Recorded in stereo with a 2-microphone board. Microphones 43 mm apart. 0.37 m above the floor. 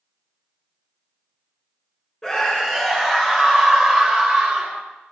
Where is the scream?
10° left (ahead or behind), 1.8 m; by 4.8 s 30° right (ahead or behind), 2 m.